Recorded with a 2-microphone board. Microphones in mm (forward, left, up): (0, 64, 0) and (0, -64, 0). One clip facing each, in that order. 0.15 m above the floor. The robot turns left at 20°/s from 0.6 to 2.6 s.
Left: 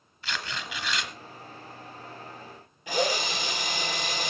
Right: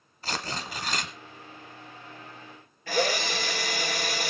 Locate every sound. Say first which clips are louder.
0.2 s tearing paper: right 2 dB; 40° right (ahead or behind), 1.8 m; by 1.1 s 45° right (ahead or behind), 1.8 m
2.9 s a drill: right 1 dB; 15° left (ahead or behind), 3.5 m